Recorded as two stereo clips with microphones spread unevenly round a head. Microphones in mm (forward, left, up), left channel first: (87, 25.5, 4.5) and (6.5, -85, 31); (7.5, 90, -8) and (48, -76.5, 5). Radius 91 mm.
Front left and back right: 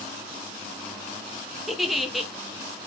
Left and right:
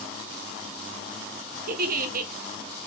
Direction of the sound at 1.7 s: 40° right.